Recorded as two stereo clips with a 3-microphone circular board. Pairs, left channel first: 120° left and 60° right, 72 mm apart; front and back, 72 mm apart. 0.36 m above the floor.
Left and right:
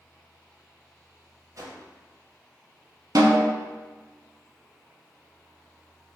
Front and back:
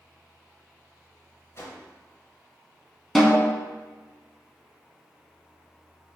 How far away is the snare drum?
About 0.8 m.